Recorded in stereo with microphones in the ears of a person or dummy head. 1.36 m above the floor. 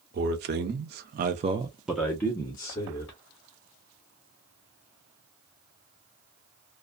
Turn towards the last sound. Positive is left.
turn(degrees=25)  # may be behind; listen again after turning